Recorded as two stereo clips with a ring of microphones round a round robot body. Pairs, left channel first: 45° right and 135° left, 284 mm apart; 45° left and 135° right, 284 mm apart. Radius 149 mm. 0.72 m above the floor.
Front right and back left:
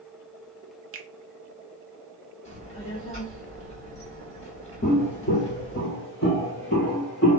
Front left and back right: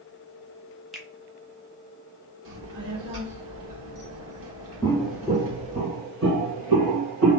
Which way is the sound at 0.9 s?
135° left.